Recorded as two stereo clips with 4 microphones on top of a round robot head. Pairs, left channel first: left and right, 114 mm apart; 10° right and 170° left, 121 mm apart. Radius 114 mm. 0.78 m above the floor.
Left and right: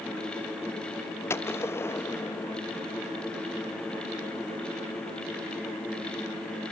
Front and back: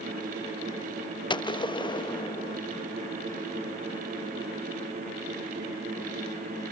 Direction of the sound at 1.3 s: 30° left.